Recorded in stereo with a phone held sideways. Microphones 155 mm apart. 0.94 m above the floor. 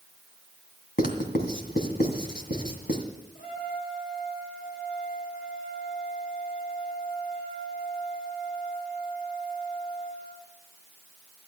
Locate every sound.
1.0 s writing: 65° left (ahead or behind), 2 m
3.4 s a trumpet: 65° left (ahead or behind), 3.5 m